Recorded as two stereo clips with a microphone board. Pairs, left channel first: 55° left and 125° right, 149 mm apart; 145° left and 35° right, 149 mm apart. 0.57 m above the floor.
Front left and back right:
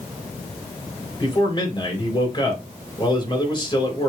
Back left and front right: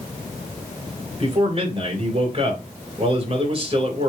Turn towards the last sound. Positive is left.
turn(degrees=5)